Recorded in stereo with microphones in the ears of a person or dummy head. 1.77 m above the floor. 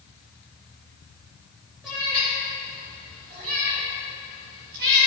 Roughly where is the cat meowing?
Centre.